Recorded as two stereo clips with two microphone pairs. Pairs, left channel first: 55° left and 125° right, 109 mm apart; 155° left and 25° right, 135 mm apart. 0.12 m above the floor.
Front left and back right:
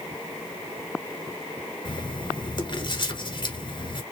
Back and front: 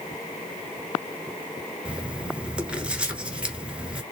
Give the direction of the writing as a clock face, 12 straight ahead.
10 o'clock.